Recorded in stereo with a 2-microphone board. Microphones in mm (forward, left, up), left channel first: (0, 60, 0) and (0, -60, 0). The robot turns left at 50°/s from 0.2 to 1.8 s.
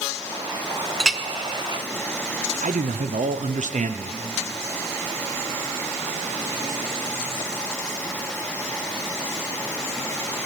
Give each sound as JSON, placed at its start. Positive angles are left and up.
{"t": 1.0, "sound": "a clink", "side_deg": 0, "distance_m": 0.5}
{"t": 2.6, "sound": "a man speaking", "side_deg": -80, "distance_m": 0.7}